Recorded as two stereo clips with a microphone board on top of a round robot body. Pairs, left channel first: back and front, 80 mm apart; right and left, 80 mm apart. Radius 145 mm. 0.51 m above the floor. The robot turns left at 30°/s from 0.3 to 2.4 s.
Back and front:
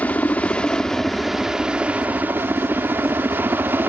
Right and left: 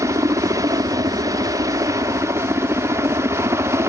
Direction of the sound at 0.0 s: 115° left.